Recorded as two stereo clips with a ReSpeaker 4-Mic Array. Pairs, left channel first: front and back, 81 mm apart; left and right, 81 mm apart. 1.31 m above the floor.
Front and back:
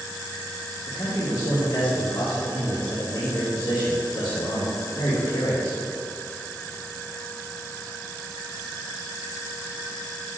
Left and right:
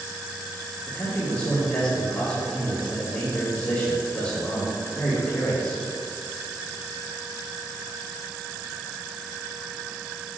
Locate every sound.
0.9 s a man speaking: 35° left, 2.0 m